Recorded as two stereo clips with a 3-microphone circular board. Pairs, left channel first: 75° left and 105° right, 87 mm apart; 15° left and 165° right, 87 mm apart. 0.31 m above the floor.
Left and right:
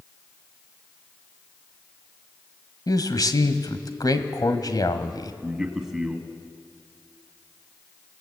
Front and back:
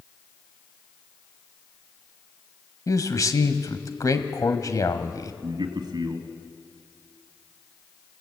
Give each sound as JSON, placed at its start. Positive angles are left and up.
{"t": 2.9, "sound": "a man speaking", "azimuth_deg": 50, "distance_m": 1.5}
{"t": 5.4, "sound": "a man speaking", "azimuth_deg": 170, "distance_m": 2.0}